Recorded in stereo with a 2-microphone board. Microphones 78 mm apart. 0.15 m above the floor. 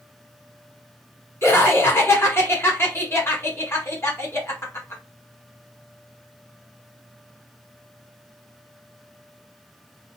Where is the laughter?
35° left (ahead or behind), 1.2 m.